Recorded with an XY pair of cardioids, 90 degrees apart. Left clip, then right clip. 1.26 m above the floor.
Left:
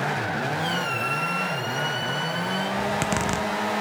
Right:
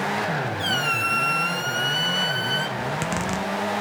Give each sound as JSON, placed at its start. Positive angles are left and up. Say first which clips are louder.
{"t": 0.6, "sound": "a squeak", "louder": "right 3 dB", "azimuth_deg": -60, "distance_m": 1.4}
{"t": 2.8, "sound": "a zipper", "louder": "left 2 dB", "azimuth_deg": 20, "distance_m": 0.8}